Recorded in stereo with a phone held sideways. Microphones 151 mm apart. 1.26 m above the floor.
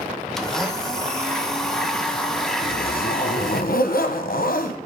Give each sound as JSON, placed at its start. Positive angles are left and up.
{"t": 0.4, "sound": "a blender", "side_deg": 5, "distance_m": 0.7}
{"t": 2.6, "sound": "a zipper", "side_deg": 75, "distance_m": 0.7}